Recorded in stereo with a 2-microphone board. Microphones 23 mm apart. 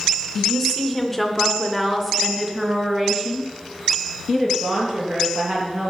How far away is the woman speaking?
About 2 m.